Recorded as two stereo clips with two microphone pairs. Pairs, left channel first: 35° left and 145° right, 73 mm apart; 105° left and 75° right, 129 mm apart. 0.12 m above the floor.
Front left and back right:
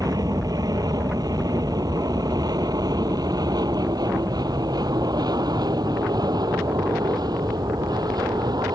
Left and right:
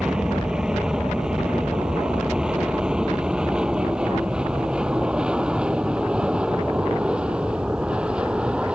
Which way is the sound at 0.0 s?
155° right.